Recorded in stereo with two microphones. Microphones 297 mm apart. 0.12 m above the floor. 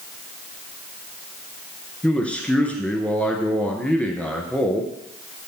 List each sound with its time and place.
2.0 s a man speaking: 5° left (ahead or behind), 1.5 m